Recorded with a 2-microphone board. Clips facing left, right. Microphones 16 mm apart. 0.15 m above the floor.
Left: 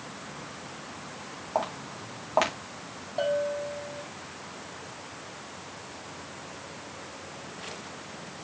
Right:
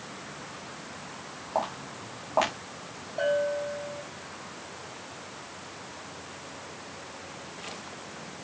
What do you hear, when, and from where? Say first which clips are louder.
1.6 s footsteps: even; 15° left (ahead or behind), 4 m
3.2 s a bell: right 1 dB; 20° left (ahead or behind), 5.5 m